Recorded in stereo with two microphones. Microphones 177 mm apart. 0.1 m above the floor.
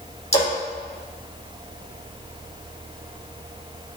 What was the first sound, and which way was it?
A splash, 40° left (ahead or behind).